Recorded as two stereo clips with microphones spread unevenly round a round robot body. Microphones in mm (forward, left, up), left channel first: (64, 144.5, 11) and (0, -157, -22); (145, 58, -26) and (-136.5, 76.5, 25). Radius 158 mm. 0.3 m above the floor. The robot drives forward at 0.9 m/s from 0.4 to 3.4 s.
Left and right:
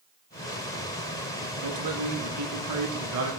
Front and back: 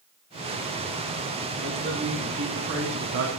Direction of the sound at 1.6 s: 115° right.